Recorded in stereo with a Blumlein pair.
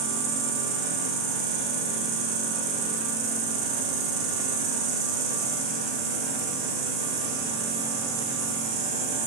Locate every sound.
0.0 s an insect: 40° right, 2.5 m